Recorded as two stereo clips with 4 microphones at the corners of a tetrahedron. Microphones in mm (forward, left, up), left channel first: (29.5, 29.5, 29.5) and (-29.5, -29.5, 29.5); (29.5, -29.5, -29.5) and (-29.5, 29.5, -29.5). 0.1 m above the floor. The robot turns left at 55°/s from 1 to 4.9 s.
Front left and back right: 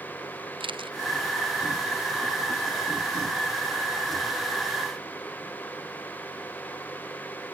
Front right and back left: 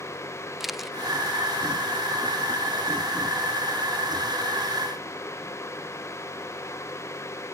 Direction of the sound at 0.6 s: 140° right.